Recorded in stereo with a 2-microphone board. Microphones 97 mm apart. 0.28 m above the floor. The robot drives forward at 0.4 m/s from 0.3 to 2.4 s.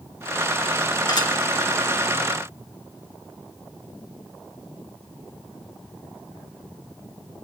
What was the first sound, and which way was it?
Dishes clattering, 45° left (ahead or behind).